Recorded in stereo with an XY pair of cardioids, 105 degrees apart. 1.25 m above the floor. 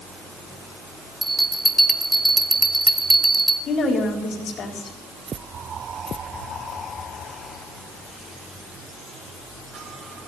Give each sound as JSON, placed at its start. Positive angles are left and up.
{"t": 1.2, "sound": "a bell", "azimuth_deg": -10, "distance_m": 1.4}
{"t": 3.7, "sound": "a woman speaking", "azimuth_deg": 55, "distance_m": 4.0}